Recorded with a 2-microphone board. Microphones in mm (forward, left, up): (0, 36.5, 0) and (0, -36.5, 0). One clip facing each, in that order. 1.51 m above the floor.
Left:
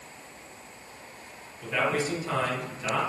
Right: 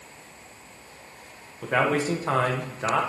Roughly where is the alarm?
No alarm in this recording.